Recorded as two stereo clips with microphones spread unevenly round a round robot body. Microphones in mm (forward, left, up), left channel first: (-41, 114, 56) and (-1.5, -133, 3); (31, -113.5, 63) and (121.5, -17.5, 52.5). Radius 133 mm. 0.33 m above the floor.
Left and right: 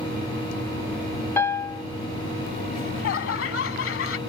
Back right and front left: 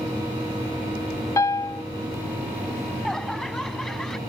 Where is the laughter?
140° left.